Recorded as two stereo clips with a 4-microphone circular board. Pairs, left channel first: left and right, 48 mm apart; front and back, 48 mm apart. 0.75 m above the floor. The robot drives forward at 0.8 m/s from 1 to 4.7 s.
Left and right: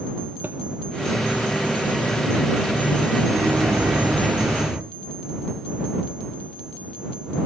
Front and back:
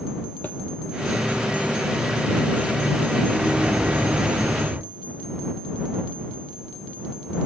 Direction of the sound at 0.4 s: 50° right.